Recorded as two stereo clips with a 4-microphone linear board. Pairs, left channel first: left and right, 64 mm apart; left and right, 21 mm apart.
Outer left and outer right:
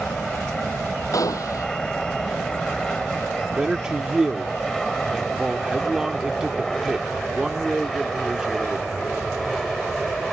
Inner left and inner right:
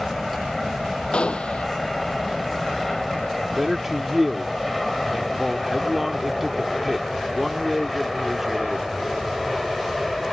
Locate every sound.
0.0 s an aircraft: 10° left (ahead or behind); by 10.3 s centre (ahead or behind)
1.1 s a gunshot: 65° left (ahead or behind)
3.6 s a man speaking: 15° right (ahead or behind)